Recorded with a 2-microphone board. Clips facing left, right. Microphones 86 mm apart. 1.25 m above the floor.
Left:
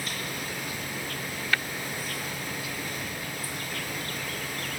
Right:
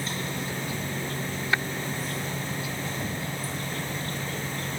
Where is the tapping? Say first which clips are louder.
Right 2 dB; 20° right (ahead or behind).